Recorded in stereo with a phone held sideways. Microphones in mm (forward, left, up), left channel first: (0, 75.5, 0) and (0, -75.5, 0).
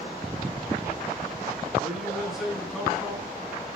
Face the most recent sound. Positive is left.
turn(degrees=0)  # may be behind; listen again after turning